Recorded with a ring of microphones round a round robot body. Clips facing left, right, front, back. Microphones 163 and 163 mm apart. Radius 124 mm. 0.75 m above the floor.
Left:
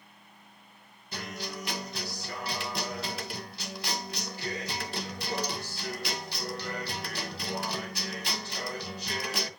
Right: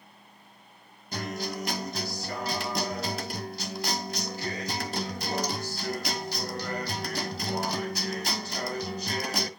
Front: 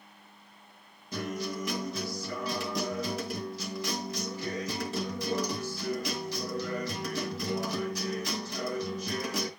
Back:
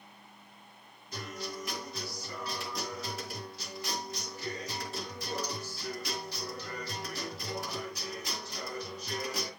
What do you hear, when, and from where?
1.1 s a guitar: 40° right, 1.8 m